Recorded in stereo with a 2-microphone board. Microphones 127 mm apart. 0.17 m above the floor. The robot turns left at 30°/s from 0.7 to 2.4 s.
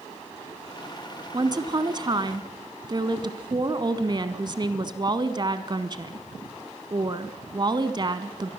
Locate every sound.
1.3 s a woman speaking: 65° right, 1.4 m; by 8.5 s 100° right, 1.4 m